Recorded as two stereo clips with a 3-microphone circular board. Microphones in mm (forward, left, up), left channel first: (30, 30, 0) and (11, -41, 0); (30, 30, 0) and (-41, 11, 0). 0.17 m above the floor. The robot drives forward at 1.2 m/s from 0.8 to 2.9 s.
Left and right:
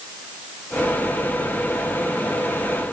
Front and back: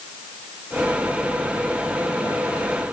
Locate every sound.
Only background noise.